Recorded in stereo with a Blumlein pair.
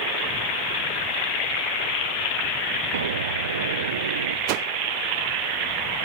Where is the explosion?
65° right.